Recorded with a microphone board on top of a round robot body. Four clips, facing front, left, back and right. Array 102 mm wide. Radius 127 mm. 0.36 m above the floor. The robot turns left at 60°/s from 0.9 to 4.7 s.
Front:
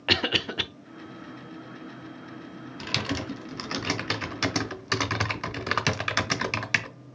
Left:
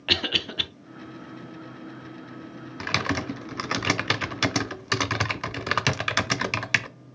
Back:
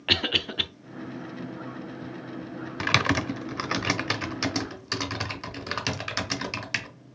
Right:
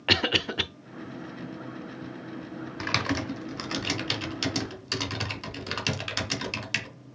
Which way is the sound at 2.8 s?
175° left.